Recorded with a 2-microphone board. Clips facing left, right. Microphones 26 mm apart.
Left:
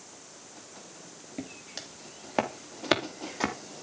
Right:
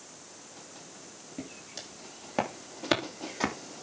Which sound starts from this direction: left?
Footsteps, at 1.4 s.